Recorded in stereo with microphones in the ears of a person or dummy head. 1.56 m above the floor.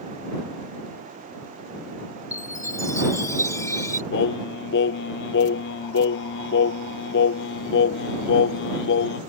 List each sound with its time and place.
2.3 s a chime: 15° left (ahead or behind)
4.1 s singing: 60° left (ahead or behind)